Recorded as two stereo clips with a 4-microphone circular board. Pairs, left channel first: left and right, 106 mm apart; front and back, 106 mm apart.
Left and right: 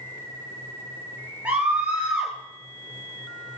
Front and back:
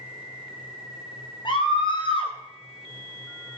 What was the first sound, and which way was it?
A scream, 15° right.